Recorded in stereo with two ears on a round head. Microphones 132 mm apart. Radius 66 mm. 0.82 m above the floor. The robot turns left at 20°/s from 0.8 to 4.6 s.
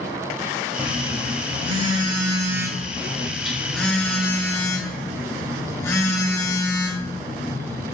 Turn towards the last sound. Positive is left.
turn(degrees=160)